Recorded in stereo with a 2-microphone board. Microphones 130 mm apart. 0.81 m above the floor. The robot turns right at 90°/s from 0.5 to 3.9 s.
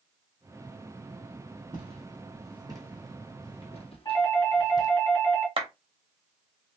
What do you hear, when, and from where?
1.7 s footsteps: 40° right (ahead or behind), 1.8 m; by 5.0 s 30° left (ahead or behind), 1.2 m
4.0 s a doorbell: 30° left (ahead or behind), 2.0 m
5.6 s a clap: 45° right (ahead or behind), 1.0 m